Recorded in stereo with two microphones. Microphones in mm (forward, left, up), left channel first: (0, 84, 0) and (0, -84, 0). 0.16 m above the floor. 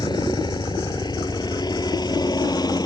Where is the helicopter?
25° left (ahead or behind).